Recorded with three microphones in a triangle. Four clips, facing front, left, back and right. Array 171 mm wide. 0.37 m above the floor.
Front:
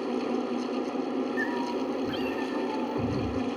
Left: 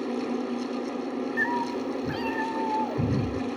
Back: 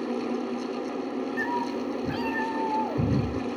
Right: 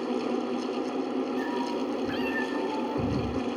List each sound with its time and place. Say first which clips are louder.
1.4 s a cat meowing: left 1 dB, back 1 dB; 130° left, 1.9 m; by 3.3 s 165° left, 3.5 m